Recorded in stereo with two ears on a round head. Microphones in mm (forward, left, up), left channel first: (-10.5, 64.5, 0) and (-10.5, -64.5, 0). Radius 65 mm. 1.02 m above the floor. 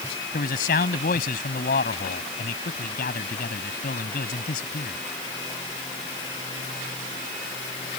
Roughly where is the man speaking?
Left.